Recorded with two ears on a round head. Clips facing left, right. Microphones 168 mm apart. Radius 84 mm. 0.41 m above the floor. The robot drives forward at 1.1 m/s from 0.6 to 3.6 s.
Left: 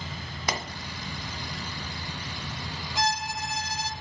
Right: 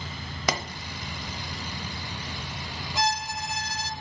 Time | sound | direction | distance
0.5 | a pop | 60° right (ahead or behind) | 0.9 m
3.0 | a violin | 65° right (ahead or behind) | 1.0 m